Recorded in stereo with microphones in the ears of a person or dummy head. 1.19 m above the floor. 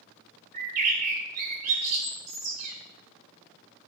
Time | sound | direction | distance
0.5 | a bird | 50° right (ahead or behind) | 2 m